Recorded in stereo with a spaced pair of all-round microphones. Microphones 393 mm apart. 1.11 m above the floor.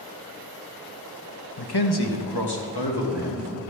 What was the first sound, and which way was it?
A man speaking, 75° left (ahead or behind).